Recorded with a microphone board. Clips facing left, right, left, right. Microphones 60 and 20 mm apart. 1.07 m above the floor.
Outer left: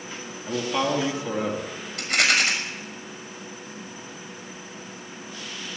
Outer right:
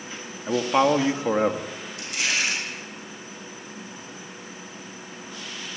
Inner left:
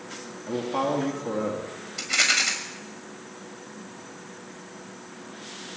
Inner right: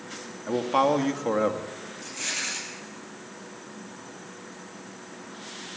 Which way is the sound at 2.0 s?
75° left (ahead or behind).